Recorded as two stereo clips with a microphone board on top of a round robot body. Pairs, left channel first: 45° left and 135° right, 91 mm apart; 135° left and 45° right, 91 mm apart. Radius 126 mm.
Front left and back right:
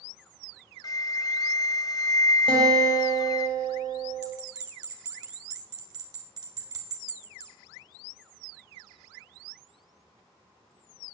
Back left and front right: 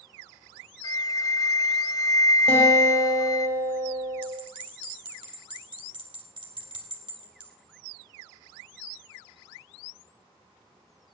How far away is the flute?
About 0.7 m.